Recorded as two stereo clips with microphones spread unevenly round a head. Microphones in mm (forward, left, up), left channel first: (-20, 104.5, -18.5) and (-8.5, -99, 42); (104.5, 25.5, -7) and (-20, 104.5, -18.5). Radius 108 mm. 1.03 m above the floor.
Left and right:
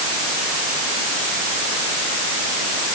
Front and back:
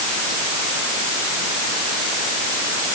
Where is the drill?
I don't hear a drill.